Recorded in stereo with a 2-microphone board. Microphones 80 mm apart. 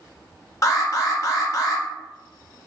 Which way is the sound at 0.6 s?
40° left (ahead or behind).